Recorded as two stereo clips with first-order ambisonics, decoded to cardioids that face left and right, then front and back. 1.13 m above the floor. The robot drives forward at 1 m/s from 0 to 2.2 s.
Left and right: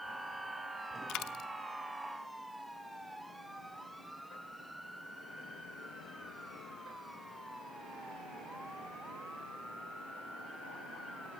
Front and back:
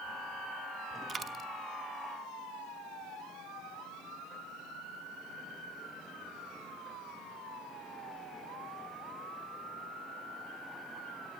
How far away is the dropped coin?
About 0.9 m.